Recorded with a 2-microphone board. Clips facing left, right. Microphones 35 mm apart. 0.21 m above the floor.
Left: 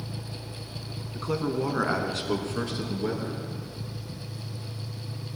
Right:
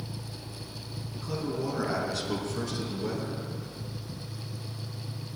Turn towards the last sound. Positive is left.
turn(degrees=25)  # may be behind; listen again after turning